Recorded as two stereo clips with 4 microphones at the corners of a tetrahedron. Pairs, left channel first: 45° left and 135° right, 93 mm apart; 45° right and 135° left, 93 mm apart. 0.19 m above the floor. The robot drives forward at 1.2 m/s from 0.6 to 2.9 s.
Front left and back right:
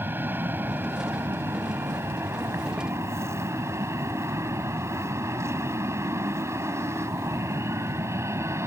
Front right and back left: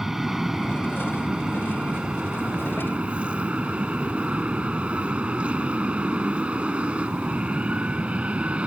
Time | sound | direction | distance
0.0 | an aircraft | 145° right | ?